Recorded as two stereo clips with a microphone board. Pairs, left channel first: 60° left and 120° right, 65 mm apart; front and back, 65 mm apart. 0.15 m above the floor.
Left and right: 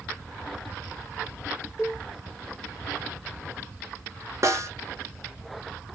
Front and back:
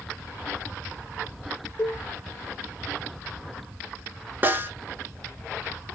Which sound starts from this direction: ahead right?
A cowbell, at 1.8 s.